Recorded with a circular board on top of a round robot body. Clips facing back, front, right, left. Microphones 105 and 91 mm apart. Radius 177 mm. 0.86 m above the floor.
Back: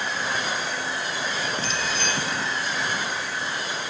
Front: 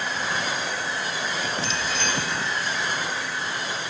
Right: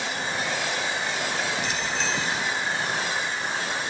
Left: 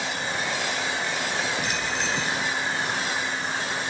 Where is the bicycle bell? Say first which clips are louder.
Even, even; 135° left, 3.5 m.